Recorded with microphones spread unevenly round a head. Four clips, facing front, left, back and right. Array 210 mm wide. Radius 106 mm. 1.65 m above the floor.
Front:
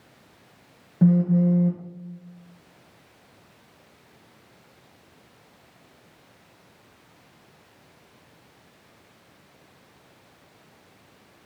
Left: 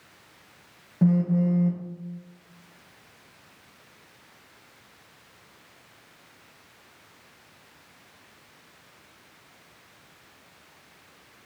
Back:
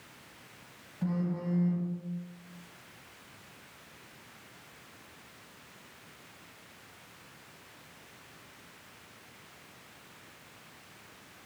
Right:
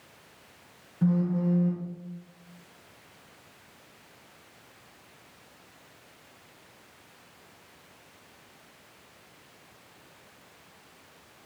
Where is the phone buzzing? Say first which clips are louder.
Left 4 dB, front 14 dB; 30° left, 0.8 m.